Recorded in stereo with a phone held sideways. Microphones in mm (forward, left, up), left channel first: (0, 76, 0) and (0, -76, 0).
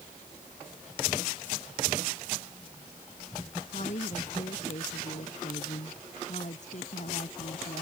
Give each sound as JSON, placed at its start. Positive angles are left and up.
{"t": 3.7, "sound": "a woman speaking", "side_deg": 50}